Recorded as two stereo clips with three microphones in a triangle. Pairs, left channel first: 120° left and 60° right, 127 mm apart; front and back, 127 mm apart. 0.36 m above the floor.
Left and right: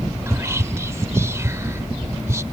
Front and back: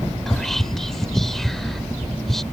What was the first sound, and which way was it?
Whispering, 80° right.